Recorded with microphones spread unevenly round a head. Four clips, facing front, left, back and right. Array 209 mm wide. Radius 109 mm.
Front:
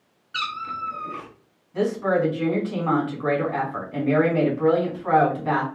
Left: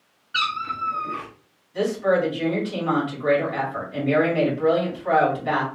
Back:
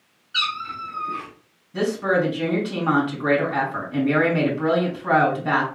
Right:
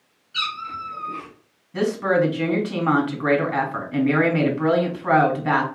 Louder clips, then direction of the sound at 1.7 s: Right 1 dB, even; 115° right.